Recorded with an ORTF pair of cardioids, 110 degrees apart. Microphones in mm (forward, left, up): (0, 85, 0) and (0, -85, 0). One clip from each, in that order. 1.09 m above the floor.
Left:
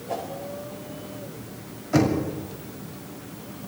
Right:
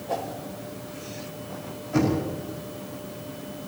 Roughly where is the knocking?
Ahead left.